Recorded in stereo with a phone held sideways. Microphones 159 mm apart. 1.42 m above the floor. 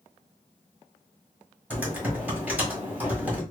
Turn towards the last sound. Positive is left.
turn(degrees=-10)  # may be behind; listen again after turning